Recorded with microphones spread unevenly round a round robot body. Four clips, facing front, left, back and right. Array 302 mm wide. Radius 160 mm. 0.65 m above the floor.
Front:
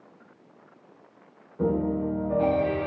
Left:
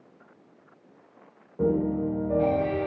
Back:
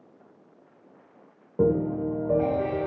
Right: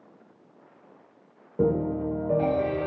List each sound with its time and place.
1.6 s a piano: 145° right, 3 m